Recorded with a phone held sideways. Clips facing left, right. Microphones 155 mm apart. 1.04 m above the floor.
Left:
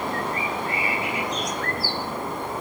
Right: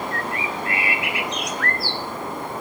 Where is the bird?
80° right, 0.7 m.